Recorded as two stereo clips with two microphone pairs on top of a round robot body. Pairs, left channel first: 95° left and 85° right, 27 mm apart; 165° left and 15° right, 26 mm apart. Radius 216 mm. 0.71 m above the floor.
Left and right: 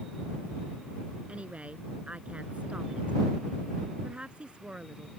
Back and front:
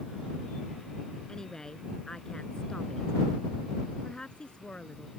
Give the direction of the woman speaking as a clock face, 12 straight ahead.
4 o'clock.